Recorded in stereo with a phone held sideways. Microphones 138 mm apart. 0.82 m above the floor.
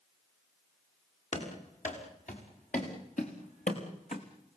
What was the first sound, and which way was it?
Running footsteps, 65° left (ahead or behind).